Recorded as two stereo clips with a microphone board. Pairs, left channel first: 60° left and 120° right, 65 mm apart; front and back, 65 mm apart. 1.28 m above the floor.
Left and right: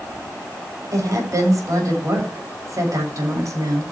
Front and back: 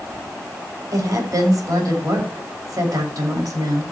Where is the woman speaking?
155° right, 7 m.